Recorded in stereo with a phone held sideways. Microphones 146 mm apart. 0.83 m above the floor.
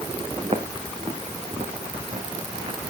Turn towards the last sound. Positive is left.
turn(degrees=-40)  # may be behind; listen again after turning